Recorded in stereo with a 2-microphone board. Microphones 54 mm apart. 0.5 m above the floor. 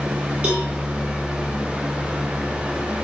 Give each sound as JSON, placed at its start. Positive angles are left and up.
{"t": 0.4, "sound": "a cowbell", "side_deg": -20, "distance_m": 9.5}